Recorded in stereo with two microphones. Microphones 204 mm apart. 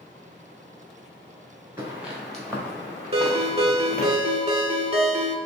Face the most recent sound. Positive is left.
turn(degrees=-30)  # may be behind; listen again after turning